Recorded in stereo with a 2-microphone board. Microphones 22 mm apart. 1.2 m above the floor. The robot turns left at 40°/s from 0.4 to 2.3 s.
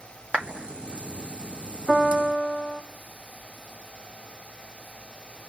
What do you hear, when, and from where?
0.3 s a clap: 85° right, 1.9 m
1.9 s a piano: 40° right (ahead or behind), 0.8 m; by 2.8 s 30° right (ahead or behind), 0.8 m